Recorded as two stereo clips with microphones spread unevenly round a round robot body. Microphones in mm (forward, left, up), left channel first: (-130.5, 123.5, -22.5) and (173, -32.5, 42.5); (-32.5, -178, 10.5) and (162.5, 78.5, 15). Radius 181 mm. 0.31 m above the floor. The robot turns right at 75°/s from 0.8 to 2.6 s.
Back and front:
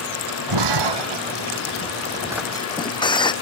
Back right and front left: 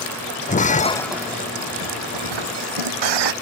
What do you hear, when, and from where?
0.5 s breaking glass: 60° right; by 3.3 s 75° left